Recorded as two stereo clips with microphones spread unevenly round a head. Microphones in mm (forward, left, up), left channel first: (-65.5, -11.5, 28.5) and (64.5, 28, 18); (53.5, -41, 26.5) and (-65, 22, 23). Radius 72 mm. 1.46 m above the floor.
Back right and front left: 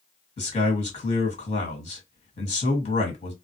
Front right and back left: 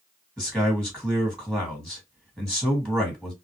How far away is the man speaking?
About 1.6 m.